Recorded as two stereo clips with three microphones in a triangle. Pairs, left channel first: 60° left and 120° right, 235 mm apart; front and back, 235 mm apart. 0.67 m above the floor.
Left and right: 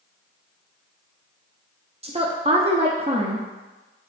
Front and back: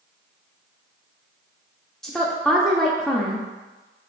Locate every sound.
2.0 s a woman speaking: 85° right, 0.6 m